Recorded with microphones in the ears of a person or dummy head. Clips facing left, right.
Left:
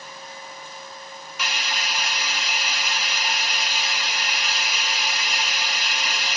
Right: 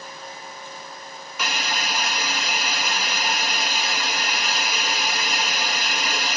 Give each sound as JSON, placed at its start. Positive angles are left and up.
{"t": 1.4, "sound": "a hiss", "side_deg": -40}